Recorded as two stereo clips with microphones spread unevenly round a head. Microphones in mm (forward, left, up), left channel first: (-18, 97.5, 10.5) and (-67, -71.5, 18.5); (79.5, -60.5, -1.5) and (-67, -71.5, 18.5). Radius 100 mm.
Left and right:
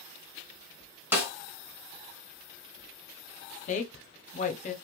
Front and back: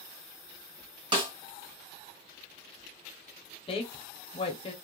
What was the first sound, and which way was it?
A snare drum, 175° right.